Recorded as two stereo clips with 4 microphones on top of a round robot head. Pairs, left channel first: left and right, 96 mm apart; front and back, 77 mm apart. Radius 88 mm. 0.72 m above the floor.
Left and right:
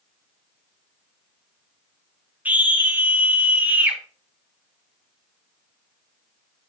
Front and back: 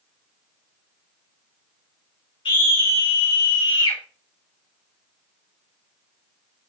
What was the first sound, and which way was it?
A scream, 20° right.